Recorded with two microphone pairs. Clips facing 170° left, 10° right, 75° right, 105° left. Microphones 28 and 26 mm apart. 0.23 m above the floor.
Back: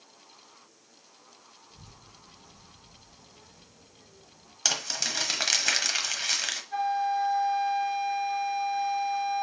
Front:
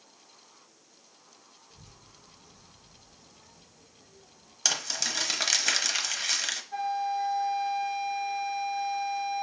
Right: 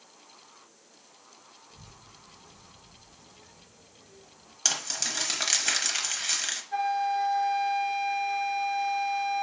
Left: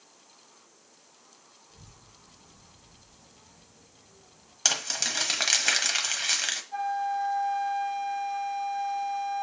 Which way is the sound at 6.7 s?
120° right.